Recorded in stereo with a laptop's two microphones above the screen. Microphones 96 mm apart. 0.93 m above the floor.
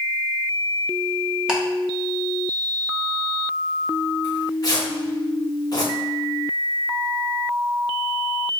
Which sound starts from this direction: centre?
Ticking, at 1.5 s.